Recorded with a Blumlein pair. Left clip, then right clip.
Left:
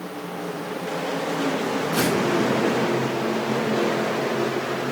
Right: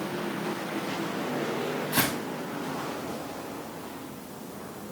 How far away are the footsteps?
About 6 m.